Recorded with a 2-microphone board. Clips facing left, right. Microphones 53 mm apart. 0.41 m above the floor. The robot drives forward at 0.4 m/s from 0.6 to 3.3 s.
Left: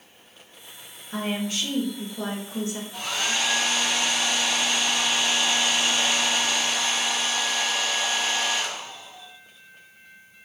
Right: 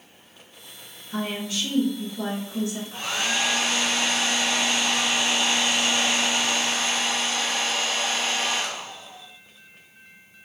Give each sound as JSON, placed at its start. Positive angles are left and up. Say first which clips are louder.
{"t": 1.1, "sound": "a woman speaking", "louder": "left 1 dB", "side_deg": 35, "distance_m": 0.9}
{"t": 2.9, "sound": "a hair dryer", "louder": "even", "side_deg": -35, "distance_m": 1.3}